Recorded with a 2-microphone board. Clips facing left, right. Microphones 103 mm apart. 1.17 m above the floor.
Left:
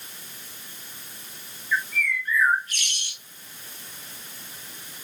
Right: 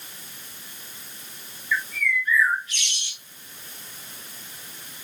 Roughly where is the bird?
Left.